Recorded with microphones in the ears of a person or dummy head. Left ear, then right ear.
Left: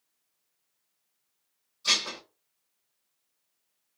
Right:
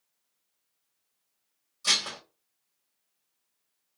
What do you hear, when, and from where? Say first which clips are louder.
1.8 s dishes clattering: even; 25° right (ahead or behind), 1.6 m